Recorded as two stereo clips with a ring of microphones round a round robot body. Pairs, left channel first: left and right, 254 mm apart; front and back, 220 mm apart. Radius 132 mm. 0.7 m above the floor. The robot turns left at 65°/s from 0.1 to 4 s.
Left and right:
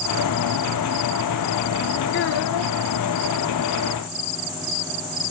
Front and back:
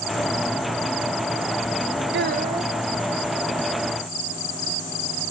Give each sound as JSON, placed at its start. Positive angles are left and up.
{"t": 2.1, "sound": "a child speaking", "azimuth_deg": 140, "distance_m": 0.9}